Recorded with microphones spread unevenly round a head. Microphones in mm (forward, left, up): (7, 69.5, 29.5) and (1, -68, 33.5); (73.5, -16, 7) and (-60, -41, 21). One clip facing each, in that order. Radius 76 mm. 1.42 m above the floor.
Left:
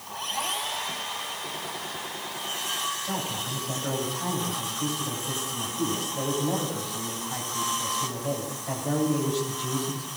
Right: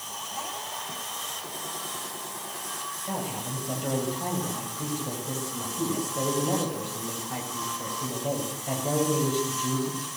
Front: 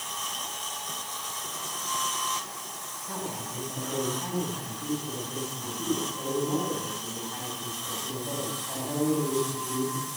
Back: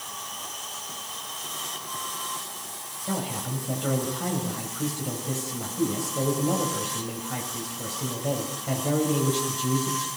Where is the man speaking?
165° right, 10 m.